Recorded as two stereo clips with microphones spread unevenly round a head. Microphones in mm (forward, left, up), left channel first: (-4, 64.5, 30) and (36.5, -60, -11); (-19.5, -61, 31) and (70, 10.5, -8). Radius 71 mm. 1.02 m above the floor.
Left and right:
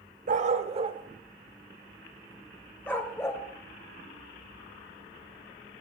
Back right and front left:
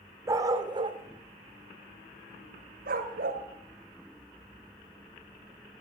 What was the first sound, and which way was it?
A dog barking, 35° right.